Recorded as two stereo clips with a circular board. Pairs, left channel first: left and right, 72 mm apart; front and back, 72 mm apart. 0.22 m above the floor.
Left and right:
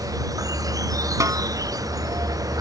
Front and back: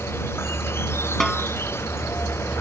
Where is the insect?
55° right.